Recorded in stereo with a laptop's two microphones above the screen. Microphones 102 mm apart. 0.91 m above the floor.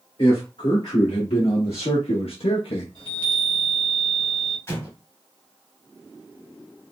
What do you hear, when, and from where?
0.2 s a man speaking: 80° left, 1.9 m; by 2.9 s 70° left (ahead or behind), 0.6 m
3.0 s a chime: 55° left (ahead or behind), 1.5 m
4.7 s an explosion: 25° left (ahead or behind), 1.2 m